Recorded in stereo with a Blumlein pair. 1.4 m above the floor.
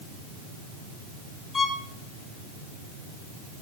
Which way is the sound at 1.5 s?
15° left.